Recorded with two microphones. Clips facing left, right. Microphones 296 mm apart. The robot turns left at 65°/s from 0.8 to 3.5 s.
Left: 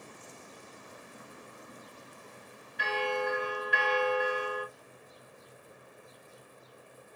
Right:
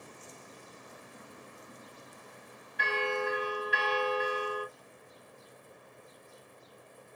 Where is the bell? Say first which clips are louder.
Left 1 dB; 95° right, 1.0 m; by 4.7 s 140° right, 1.0 m.